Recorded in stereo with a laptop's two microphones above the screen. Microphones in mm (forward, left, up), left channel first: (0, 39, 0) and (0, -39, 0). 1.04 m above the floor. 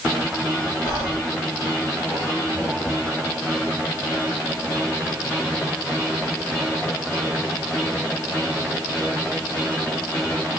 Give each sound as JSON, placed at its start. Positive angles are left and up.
{"t": 0.8, "sound": "whispering", "side_deg": 55, "distance_m": 1.7}